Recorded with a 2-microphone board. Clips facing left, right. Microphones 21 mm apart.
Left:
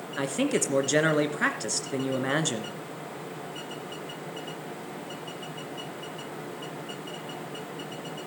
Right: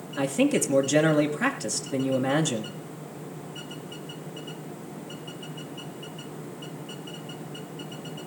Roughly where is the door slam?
I don't hear a door slam.